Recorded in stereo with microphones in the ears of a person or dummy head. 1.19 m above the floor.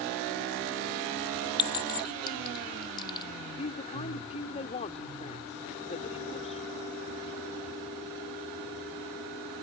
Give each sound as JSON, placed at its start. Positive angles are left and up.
{"t": 1.6, "sound": "a clink", "side_deg": 25}
{"t": 3.6, "sound": "a woman speaking", "side_deg": 35}